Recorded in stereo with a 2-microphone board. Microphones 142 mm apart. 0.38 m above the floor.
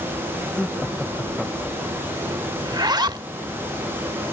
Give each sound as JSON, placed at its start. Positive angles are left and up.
{"t": 0.6, "sound": "laughter", "side_deg": 5}
{"t": 2.6, "sound": "a zipper", "side_deg": -30}